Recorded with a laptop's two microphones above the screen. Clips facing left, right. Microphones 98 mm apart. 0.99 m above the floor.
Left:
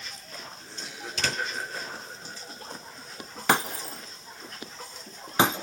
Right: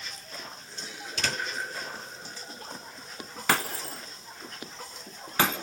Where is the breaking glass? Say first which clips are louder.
Left 3 dB; 20° left (ahead or behind), 0.9 m.